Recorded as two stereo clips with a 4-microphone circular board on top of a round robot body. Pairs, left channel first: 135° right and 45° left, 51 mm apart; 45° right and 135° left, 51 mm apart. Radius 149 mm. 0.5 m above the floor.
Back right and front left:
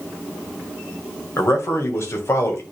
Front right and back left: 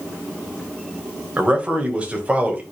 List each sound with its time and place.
1.4 s a man speaking: 160° right, 3 m